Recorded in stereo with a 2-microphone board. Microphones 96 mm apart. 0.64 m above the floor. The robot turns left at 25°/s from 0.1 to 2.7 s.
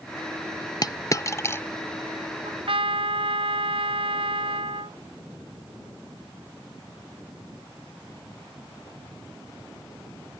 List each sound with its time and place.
0.8 s a dropped coin: 45° left (ahead or behind); by 1.6 s 25° left (ahead or behind)
2.5 s a trumpet: 75° right (ahead or behind)